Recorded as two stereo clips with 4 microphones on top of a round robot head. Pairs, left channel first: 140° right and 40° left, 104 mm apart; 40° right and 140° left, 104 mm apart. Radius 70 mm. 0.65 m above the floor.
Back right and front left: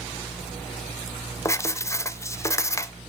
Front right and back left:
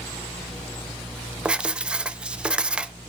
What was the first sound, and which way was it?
Writing, 150° right.